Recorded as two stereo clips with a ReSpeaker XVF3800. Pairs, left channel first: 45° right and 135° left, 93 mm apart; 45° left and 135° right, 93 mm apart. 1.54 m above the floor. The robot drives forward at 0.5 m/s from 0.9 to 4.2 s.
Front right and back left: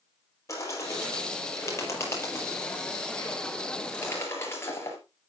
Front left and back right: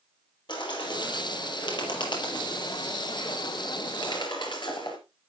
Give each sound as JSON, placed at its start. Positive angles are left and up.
{"t": 0.5, "sound": "a bird", "azimuth_deg": 10, "distance_m": 6.0}